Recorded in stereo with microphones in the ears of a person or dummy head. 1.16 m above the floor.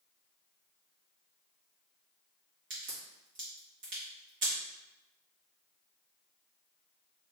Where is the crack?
55° right (ahead or behind), 1.7 m.